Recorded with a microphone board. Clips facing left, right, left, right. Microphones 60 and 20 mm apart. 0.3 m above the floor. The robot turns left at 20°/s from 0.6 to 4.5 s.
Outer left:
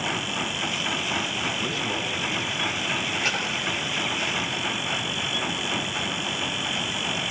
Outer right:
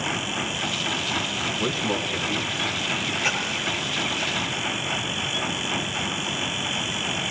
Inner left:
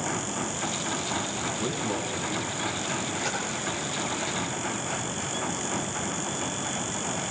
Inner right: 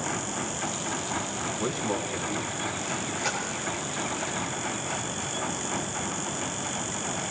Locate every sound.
1.6 s a man speaking: 15° right (ahead or behind), 2.5 m; by 3.1 s 45° right (ahead or behind), 2.5 m
3.2 s a splash: 10° right (ahead or behind), 5.5 m; by 3.5 s 15° right (ahead or behind), 5.5 m